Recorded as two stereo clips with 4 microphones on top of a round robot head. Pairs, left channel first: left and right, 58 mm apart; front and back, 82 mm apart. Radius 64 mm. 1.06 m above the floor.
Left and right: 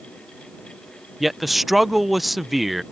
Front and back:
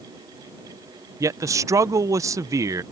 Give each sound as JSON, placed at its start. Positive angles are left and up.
{"t": 1.2, "sound": "a man speaking", "azimuth_deg": -175}